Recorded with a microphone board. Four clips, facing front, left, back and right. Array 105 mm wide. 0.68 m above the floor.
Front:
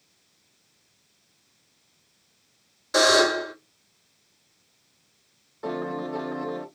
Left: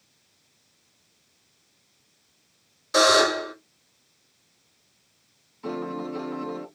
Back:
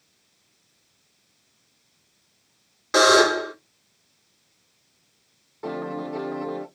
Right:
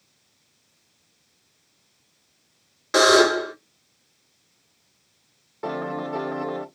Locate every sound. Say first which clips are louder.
2.9 s a buzzer: right 3 dB, back 3 dB; 135° right, 1.7 m
5.6 s a piano: right 3 dB, even; 90° right, 1.1 m